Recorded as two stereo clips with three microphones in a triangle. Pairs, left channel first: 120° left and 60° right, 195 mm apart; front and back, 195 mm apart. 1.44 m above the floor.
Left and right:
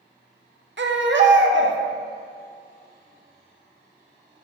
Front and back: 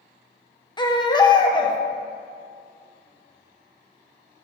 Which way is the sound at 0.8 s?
70° right.